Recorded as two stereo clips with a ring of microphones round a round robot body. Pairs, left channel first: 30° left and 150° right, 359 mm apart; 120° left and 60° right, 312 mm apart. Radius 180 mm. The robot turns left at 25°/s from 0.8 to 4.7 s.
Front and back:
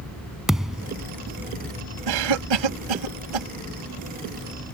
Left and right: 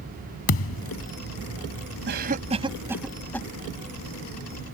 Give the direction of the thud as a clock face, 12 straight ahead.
8 o'clock.